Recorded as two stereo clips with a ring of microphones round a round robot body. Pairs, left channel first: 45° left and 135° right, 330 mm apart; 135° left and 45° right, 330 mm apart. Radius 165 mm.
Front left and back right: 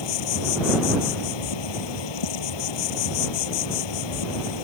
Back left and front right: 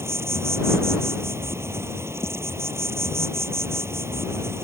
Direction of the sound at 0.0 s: 40° left.